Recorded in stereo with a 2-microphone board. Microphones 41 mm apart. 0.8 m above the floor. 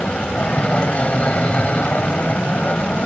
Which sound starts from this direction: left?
An aircraft, at 0.0 s.